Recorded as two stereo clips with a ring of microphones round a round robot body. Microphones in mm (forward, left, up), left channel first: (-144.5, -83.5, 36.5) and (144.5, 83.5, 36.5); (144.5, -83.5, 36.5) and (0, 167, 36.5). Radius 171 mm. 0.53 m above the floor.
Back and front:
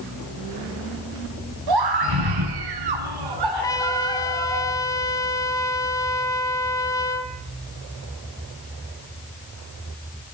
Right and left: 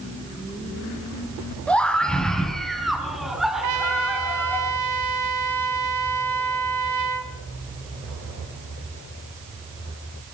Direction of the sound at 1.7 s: 25° left.